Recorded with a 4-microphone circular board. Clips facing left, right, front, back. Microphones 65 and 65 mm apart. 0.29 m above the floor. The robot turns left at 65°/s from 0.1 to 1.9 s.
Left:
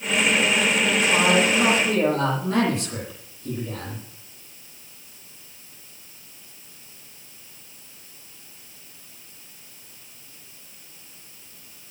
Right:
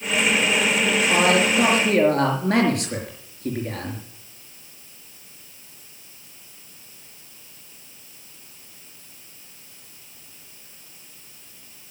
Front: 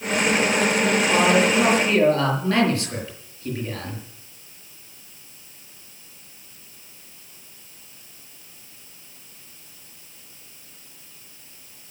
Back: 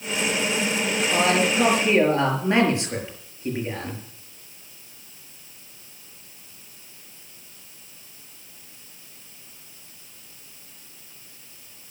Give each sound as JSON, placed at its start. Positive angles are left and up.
{"t": 1.1, "sound": "a man speaking", "azimuth_deg": -60, "distance_m": 6.0}